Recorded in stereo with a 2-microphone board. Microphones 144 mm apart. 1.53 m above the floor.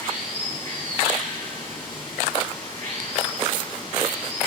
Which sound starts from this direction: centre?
Running water, at 0.0 s.